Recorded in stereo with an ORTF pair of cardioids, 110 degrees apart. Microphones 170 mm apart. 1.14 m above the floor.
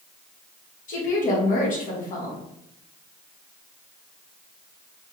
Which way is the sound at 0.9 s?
55° left.